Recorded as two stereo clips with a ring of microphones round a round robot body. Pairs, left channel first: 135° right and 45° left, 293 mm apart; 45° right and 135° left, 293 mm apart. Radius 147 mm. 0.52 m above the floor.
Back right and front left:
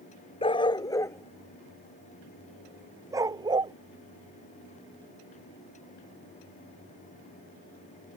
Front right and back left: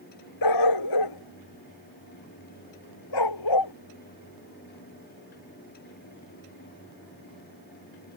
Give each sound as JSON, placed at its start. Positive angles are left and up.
{"t": 0.4, "sound": "a dog barking", "azimuth_deg": -60}